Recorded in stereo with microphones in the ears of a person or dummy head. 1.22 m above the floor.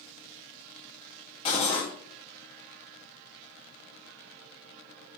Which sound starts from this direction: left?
Cutlery clinking, at 1.4 s.